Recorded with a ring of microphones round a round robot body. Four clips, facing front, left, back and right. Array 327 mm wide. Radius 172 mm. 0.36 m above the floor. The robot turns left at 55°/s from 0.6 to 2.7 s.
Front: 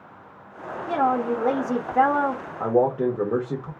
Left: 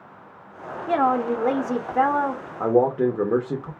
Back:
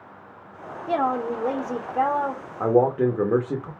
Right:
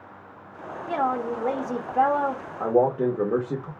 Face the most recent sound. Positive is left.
turn(degrees=140)